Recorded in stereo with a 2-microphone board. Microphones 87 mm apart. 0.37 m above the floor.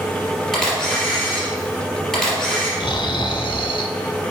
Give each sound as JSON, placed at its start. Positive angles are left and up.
{"t": 0.5, "sound": "a camera shutter", "side_deg": 5, "distance_m": 3.0}
{"t": 2.8, "sound": "snoring", "side_deg": 60, "distance_m": 0.6}